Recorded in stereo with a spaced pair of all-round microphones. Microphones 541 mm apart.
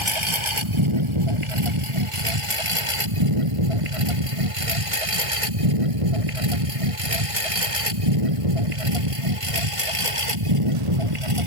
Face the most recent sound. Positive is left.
turn(degrees=-65)  # may be behind; listen again after turning